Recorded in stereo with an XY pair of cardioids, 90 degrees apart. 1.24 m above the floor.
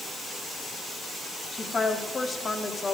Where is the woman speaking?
35° left, 2 m.